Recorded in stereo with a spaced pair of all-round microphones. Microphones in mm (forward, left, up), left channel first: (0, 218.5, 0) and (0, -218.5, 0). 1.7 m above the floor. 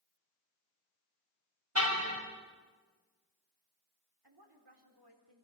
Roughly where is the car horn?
Right.